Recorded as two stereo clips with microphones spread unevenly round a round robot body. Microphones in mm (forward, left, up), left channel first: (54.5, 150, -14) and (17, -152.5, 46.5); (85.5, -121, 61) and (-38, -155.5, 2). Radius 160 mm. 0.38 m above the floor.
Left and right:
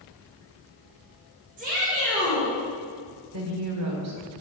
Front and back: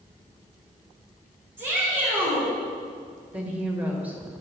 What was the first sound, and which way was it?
A shout, 160° right.